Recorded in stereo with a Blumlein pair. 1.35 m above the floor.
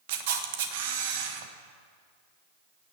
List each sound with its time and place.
0.1 s a camera shutter: 50° right, 1.4 m